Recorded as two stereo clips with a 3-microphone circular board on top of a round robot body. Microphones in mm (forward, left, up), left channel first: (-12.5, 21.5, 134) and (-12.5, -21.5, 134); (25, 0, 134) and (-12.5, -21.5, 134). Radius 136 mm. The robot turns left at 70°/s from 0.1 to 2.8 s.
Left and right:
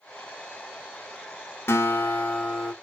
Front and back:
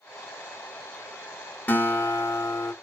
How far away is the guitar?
About 1.3 m.